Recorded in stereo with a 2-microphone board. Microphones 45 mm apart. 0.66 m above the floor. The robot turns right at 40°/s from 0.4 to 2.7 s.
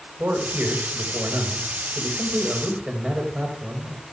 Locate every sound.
0.2 s a man speaking: 115° right, 3 m; by 4.0 s 20° right, 3 m